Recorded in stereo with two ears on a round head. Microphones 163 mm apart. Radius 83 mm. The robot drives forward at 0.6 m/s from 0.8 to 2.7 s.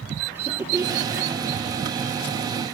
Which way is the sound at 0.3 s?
15° right (ahead or behind).